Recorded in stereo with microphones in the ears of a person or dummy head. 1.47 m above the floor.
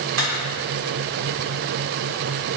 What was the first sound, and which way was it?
A camera shutter, 75° right (ahead or behind).